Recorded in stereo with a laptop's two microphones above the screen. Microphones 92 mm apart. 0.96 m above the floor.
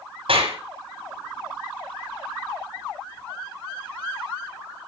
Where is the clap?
75° right (ahead or behind), 6.5 m.